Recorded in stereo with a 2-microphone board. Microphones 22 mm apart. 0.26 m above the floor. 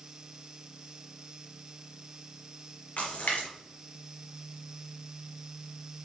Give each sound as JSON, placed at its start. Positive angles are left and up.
{"t": 3.0, "sound": "a splash", "side_deg": 70, "distance_m": 3.5}